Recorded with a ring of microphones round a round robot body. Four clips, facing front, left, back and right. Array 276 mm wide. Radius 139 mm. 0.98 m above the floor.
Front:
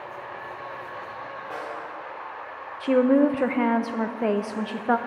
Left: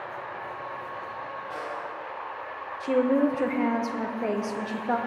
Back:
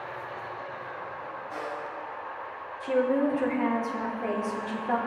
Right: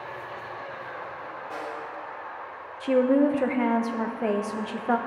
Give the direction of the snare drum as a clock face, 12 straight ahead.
12 o'clock.